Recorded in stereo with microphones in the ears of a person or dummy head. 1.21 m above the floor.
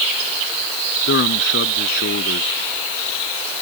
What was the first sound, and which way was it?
A man speaking, 80° left.